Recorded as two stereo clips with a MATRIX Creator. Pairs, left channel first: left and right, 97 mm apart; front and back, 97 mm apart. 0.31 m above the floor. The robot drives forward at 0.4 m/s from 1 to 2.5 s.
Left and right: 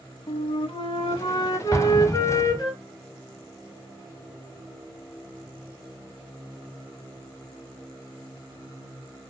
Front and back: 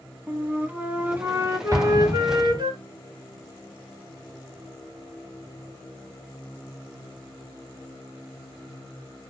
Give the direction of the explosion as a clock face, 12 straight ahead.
7 o'clock.